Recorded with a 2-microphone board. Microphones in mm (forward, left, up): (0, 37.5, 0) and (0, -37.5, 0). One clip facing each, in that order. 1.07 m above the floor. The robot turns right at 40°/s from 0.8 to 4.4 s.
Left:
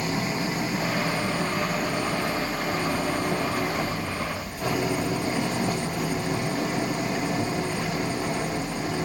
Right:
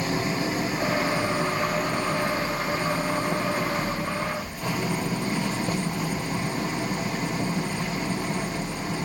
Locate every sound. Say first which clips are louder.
0.0 s an engine running: right 1 dB; 35° right, 4 m; by 9.1 s 110° left, 4 m